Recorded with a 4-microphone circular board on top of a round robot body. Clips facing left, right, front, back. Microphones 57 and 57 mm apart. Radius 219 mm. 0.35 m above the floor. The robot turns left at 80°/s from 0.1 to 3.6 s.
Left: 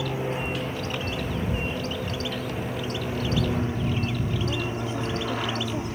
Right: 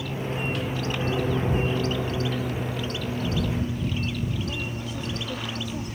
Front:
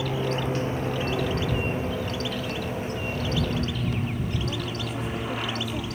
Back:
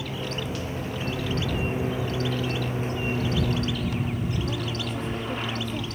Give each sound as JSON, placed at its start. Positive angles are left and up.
{"t": 0.0, "sound": "an aircraft", "azimuth_deg": 40}